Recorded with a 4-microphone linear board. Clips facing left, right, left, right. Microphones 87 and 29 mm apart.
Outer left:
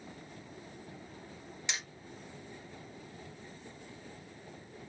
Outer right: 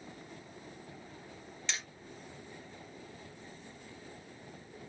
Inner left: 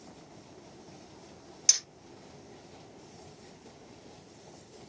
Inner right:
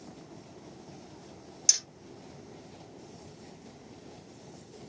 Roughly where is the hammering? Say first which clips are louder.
Even, inner left 1 dB; centre.